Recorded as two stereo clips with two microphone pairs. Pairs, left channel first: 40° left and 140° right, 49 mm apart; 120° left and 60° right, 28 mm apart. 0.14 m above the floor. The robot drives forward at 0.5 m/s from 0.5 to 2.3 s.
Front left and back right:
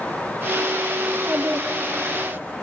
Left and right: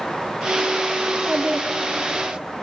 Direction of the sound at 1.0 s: 75° right.